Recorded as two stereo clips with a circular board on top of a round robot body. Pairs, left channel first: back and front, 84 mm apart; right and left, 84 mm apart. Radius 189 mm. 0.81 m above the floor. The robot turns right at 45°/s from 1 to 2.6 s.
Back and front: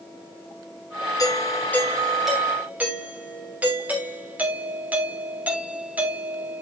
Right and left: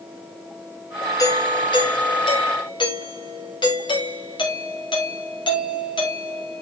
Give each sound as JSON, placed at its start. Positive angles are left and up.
{"t": 1.2, "sound": "a doorbell", "azimuth_deg": -135, "distance_m": 3.5}